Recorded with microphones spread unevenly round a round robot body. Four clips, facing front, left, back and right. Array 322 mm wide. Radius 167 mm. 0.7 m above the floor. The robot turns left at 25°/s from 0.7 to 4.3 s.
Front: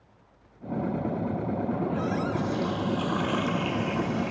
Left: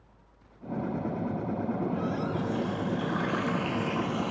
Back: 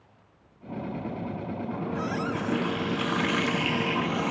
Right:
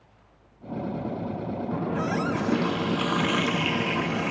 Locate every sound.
1.7 s a running tap: 90° right, 0.9 m; by 4.3 s 150° right, 0.9 m